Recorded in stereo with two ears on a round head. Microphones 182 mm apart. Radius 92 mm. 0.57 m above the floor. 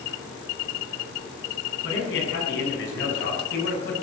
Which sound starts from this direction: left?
A man speaking, at 1.8 s.